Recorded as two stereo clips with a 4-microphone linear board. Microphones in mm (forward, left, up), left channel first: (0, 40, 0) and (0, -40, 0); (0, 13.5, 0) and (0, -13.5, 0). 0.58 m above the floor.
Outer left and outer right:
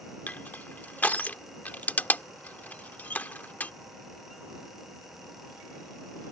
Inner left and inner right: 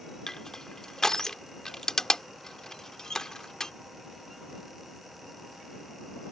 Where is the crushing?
20° left (ahead or behind).